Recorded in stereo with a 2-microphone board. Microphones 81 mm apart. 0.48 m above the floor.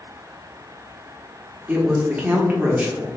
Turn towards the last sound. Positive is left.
turn(degrees=-20)  # may be behind; listen again after turning